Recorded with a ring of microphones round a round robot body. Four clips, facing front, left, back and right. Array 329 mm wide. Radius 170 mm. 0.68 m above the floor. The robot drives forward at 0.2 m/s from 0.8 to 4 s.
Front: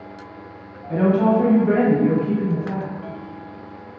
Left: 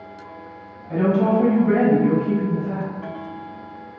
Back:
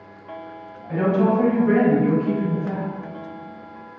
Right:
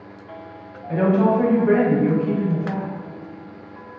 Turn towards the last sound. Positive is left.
turn(degrees=-130)